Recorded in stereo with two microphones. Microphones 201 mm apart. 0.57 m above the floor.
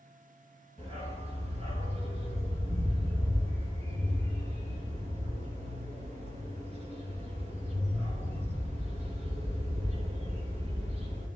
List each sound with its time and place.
0.8 s a dog barking: 30° right (ahead or behind), 3.5 m